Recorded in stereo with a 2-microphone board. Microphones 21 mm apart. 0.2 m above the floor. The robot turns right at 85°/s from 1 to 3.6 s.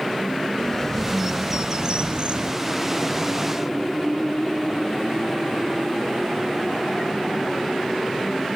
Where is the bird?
155° left, 1.6 m; by 2.5 s 75° right, 1.6 m.